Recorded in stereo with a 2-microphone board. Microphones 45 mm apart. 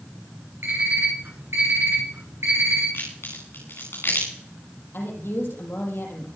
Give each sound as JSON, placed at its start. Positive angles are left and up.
{"t": 0.6, "sound": "an alarm clock", "side_deg": -85, "distance_m": 7.0}
{"t": 2.9, "sound": "a crack", "side_deg": 65, "distance_m": 10.0}
{"t": 4.9, "sound": "a woman speaking", "side_deg": 65, "distance_m": 6.0}